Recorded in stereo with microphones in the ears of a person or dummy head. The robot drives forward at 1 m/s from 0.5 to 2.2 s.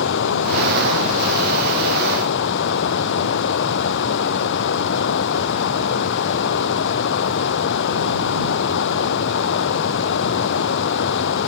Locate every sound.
0.0 s running water: 65° left (ahead or behind); by 11.5 s 60° left (ahead or behind)